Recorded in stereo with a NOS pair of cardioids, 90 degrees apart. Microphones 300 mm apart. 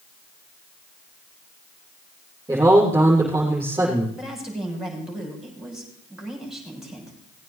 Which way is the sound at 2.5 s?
10° right.